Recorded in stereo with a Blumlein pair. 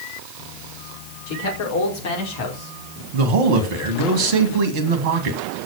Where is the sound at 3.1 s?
45° right, 2 m.